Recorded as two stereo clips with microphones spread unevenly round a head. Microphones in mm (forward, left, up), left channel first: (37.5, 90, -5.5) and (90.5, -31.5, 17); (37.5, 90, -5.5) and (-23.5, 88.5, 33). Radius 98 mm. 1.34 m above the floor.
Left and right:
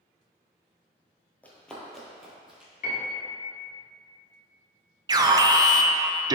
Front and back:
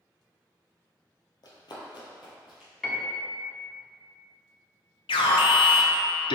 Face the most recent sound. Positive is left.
turn(degrees=-15)